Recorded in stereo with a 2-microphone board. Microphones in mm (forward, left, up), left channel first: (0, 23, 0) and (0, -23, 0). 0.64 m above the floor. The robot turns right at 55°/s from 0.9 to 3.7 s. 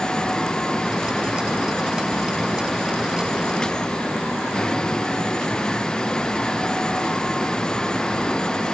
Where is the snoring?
No snoring in this recording.